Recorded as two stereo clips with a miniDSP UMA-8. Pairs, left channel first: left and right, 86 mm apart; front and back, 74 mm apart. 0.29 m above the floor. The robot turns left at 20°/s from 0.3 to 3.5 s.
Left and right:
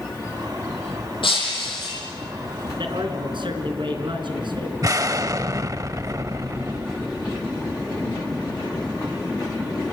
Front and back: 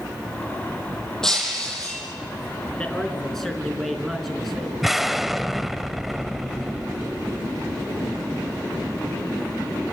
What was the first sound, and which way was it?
Breaking glass, 80° left.